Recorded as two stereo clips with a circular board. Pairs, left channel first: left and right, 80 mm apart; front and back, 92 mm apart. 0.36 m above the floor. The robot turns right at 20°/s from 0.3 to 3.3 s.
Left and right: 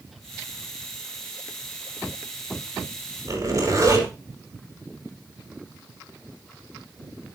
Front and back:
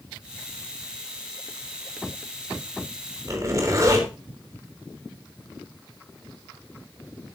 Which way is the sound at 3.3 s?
130° right.